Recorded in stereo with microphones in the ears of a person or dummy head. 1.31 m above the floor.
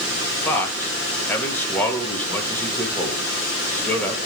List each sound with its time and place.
0.5 s a man speaking: 15° left (ahead or behind), 1.9 m